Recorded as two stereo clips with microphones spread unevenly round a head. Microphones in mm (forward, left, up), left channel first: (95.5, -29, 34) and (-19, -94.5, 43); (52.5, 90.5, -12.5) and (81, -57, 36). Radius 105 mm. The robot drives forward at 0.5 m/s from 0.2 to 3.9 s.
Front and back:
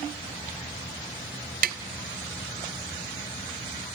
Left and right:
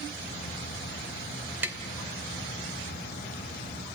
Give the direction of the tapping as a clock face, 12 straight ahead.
5 o'clock.